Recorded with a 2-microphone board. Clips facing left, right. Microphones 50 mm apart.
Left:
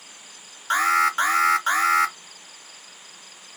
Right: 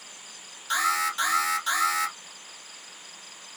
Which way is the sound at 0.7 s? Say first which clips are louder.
Left 6 dB; 40° left (ahead or behind).